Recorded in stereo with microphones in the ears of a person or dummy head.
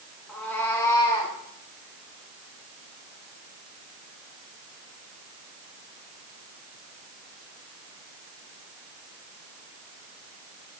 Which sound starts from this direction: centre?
A cat meowing, at 0.3 s.